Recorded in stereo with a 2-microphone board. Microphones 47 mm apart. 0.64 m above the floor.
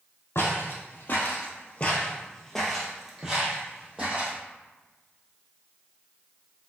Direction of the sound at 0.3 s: 65° left (ahead or behind).